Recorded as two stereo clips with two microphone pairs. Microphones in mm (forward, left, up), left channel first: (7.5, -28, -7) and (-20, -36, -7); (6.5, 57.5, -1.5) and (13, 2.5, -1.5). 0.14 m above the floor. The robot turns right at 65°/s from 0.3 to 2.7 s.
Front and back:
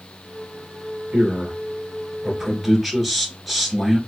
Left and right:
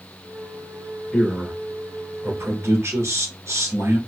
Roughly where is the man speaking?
Behind.